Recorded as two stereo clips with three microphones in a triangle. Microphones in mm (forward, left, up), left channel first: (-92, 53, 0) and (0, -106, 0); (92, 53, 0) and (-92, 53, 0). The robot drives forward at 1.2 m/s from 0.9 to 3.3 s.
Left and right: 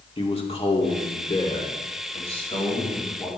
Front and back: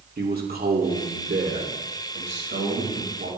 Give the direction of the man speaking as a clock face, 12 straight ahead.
6 o'clock.